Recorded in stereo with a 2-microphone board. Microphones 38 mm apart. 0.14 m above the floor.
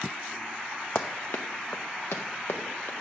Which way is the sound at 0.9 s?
70° left (ahead or behind).